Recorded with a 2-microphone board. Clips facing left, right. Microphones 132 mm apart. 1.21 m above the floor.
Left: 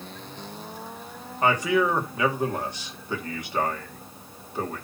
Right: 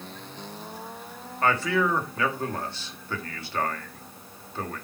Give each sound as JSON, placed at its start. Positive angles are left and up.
{"t": 1.4, "sound": "a man speaking", "side_deg": 15, "distance_m": 2.0}